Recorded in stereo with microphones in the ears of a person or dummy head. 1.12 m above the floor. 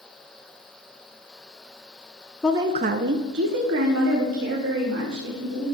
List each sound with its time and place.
2.4 s a woman speaking: 5° left (ahead or behind), 0.6 m; by 5.8 s 65° right (ahead or behind), 4 m